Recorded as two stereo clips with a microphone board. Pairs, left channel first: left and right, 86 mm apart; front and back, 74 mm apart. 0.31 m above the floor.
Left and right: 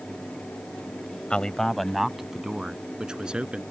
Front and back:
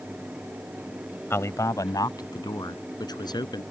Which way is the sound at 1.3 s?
20° left.